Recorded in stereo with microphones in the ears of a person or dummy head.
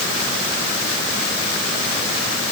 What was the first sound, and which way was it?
Only background noise.